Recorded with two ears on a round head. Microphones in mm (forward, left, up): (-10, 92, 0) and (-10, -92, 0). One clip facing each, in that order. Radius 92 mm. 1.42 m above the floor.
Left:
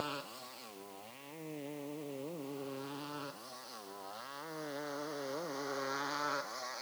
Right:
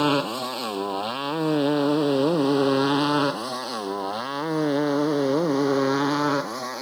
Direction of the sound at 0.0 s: 75° right (ahead or behind).